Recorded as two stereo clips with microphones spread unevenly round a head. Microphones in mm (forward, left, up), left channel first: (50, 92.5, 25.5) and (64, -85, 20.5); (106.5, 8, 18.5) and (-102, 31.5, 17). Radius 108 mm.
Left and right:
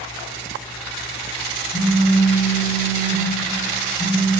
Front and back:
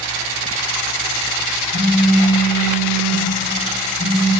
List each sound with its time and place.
1.7 s a phone buzzing: 10° right, 1.5 m